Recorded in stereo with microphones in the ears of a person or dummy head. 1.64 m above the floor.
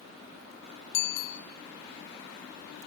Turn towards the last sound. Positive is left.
turn(degrees=60)  # may be behind; listen again after turning